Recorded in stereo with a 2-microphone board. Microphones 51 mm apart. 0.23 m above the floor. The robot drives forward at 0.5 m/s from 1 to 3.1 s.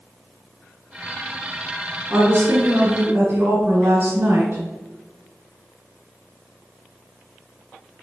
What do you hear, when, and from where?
2.1 s a woman speaking: 40° right (ahead or behind), 1.8 m; by 4.6 s 35° right (ahead or behind), 2 m